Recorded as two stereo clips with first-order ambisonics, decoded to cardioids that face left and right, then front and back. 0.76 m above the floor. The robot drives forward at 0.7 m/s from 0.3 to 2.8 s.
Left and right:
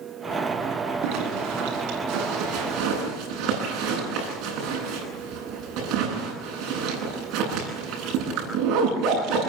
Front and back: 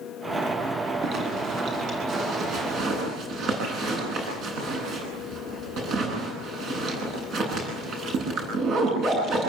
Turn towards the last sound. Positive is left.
turn(degrees=-130)